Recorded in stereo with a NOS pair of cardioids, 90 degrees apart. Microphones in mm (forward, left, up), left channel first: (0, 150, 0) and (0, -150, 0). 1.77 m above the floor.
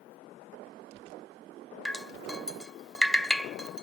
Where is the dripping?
Straight ahead, 0.7 m.